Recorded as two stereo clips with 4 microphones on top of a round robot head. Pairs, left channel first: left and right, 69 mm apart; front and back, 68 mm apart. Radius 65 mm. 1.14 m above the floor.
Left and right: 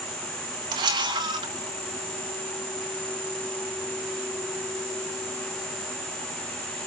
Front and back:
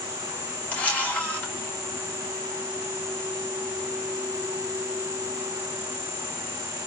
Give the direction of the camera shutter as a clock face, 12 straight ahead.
2 o'clock.